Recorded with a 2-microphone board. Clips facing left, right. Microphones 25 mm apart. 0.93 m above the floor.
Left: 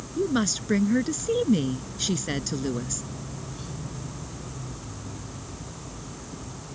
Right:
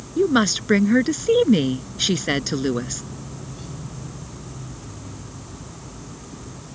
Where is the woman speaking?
40° right (ahead or behind).